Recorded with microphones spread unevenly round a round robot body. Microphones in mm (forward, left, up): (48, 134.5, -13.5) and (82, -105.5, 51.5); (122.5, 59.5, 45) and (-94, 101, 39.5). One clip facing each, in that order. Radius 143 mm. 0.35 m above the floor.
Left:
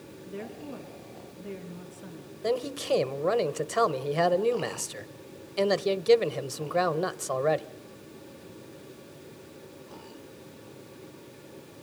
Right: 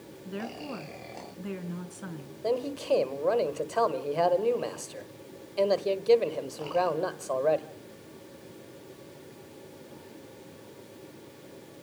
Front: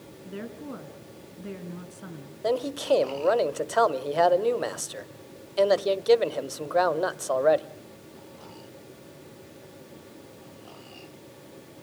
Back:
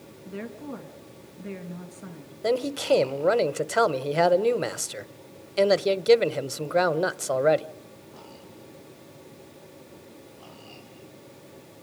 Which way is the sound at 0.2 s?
70° right.